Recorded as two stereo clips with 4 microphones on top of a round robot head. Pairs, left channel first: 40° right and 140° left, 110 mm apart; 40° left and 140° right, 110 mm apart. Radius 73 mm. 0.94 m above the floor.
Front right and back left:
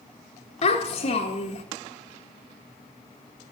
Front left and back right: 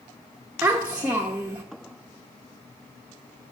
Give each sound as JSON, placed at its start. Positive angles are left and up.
{"t": 0.6, "sound": "a child speaking", "azimuth_deg": -60, "distance_m": 0.9}